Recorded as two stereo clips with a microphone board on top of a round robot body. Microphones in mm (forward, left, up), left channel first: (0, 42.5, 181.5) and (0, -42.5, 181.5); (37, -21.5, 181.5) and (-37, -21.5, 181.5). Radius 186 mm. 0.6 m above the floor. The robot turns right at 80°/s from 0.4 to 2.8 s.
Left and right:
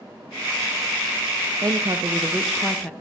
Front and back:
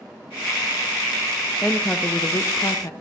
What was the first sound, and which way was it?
A woman speaking, 75° right.